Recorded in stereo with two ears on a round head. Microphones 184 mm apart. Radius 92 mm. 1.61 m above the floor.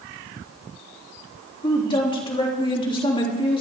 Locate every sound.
1.6 s a woman speaking: 25° left (ahead or behind), 3 m